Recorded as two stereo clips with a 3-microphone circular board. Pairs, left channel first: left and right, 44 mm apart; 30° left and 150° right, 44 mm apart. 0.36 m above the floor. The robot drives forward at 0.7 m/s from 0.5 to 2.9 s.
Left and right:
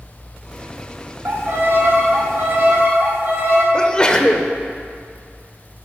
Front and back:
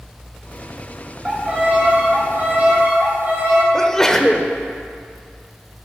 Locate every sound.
1.2 s a violin: 85° right, 2.5 m; by 3.6 s 115° right, 2.5 m
3.7 s a sneeze: 85° left, 0.9 m